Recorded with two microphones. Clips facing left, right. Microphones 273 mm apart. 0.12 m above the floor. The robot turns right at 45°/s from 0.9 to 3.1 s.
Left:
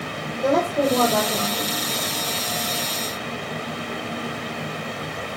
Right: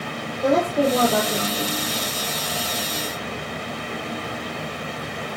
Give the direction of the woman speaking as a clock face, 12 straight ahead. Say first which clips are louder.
Right 1 dB; 6 o'clock.